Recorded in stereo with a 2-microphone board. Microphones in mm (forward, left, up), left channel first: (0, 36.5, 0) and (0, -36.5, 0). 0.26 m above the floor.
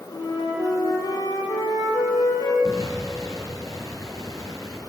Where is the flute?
75° left (ahead or behind), 6 m.